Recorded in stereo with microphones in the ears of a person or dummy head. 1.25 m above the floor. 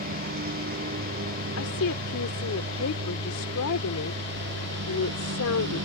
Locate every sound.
0.0 s a lawn mower: 50° right (ahead or behind); by 5.8 s 70° right (ahead or behind)
1.6 s a woman speaking: 85° left